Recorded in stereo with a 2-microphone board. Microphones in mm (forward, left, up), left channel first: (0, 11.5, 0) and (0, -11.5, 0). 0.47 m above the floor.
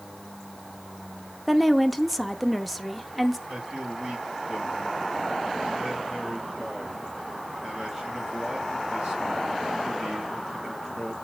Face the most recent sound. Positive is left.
turn(degrees=-20)  # may be behind; listen again after turning